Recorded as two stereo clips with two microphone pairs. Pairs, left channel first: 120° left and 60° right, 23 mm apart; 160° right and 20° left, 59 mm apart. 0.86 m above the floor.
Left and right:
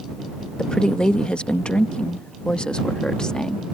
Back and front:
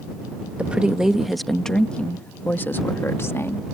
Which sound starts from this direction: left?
A woman speaking, at 0.6 s.